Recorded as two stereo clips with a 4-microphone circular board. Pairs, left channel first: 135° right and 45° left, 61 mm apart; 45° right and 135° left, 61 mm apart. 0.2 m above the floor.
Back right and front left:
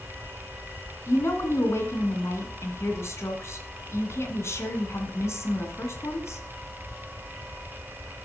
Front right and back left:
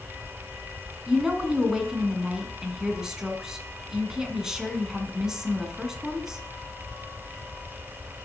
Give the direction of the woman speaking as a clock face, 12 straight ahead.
5 o'clock.